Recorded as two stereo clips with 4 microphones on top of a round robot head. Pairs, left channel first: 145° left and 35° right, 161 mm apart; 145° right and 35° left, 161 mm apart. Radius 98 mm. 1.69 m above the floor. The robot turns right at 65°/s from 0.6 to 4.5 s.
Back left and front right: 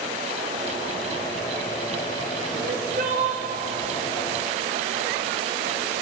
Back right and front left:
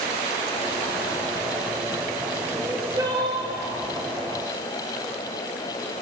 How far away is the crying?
About 0.7 m.